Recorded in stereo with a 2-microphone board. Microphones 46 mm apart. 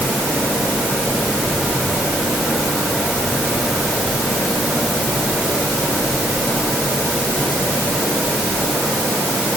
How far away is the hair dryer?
I don't hear a hair dryer.